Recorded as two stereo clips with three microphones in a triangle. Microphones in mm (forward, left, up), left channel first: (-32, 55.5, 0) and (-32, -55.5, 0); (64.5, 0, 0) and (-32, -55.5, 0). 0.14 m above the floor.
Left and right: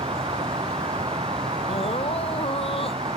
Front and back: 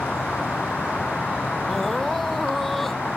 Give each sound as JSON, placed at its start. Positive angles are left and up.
{"t": 0.0, "sound": "an insect", "azimuth_deg": -55}
{"t": 1.7, "sound": "crying", "azimuth_deg": 115}